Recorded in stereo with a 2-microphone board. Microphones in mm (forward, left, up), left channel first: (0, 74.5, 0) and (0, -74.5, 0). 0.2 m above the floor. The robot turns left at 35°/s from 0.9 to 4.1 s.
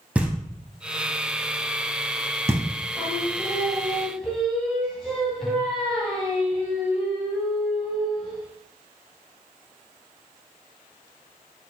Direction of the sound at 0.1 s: 10° right (ahead or behind).